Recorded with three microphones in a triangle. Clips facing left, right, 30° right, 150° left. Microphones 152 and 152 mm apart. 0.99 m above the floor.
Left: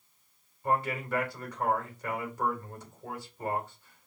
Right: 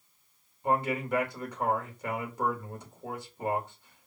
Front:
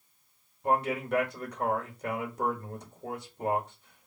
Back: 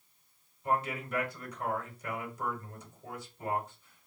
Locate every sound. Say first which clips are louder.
0.6 s a man speaking: right 2 dB, front 5 dB; 20° right, 1.7 m